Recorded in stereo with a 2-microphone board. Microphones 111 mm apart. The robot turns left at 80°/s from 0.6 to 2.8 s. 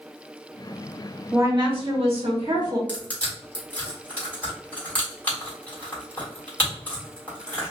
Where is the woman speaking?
25° right, 1.3 m; by 2.8 s 145° right, 1.3 m.